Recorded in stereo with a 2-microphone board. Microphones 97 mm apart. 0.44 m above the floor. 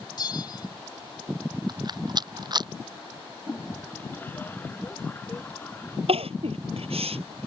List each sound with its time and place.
0.2 s a bell: 45° left (ahead or behind)
1.7 s a rattle: 45° right (ahead or behind)
3.5 s a toilet flushing: 20° left (ahead or behind)
6.1 s crying: 85° right